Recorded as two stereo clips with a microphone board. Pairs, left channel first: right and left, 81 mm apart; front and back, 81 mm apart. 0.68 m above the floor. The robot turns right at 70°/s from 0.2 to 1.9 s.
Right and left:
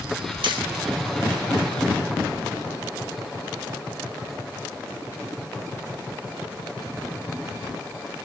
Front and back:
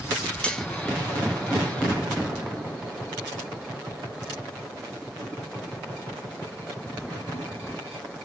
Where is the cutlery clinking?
75° left, 1.8 m; by 0.7 s 90° left, 1.8 m.